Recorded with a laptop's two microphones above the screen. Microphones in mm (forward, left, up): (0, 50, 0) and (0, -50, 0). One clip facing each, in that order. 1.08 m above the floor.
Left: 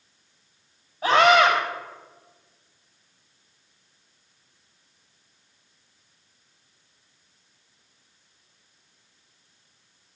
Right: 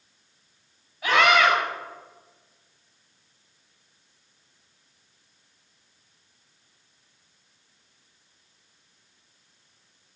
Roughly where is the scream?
Left.